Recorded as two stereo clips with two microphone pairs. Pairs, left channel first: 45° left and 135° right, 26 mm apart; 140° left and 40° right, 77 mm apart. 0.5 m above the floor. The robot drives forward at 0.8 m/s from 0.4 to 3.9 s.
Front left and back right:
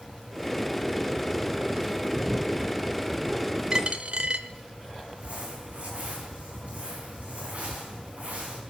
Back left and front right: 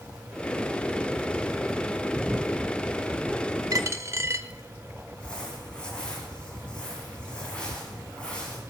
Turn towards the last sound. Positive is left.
turn(degrees=-145)